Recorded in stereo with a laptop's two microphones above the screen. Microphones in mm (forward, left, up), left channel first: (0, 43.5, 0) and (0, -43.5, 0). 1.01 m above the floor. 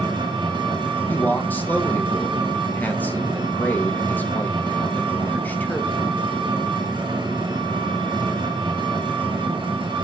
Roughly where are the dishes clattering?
I don't hear dishes clattering.